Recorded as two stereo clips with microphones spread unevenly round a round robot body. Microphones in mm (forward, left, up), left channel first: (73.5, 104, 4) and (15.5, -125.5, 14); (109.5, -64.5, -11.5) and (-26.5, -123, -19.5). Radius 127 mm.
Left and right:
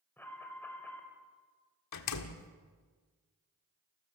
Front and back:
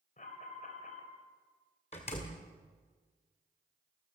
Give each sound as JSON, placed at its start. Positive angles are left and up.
{"t": 0.2, "sound": "an alarm", "azimuth_deg": -5, "distance_m": 4.0}
{"t": 1.9, "sound": "a door slam", "azimuth_deg": 90, "distance_m": 1.4}